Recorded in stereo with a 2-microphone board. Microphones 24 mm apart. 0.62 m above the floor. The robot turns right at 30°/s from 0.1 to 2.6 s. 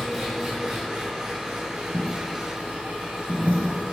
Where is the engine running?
Straight behind, 2.5 m; by 4.0 s 105° right, 2.5 m.